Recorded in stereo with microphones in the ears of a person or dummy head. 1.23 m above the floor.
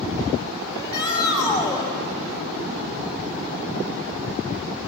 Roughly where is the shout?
Left.